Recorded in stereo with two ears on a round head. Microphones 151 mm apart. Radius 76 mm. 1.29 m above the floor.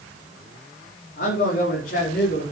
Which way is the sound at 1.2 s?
55° left (ahead or behind).